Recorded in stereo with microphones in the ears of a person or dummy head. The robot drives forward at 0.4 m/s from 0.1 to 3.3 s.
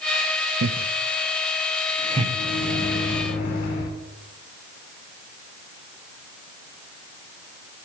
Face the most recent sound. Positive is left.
turn(degrees=45)  # may be behind; listen again after turning